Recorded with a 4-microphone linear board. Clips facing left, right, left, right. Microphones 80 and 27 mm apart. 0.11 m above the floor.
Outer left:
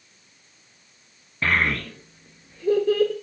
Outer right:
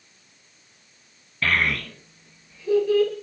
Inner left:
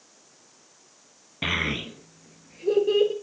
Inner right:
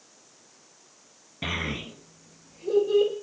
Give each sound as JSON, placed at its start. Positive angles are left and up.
{"t": 1.4, "sound": "a child speaking", "side_deg": 20, "distance_m": 0.9}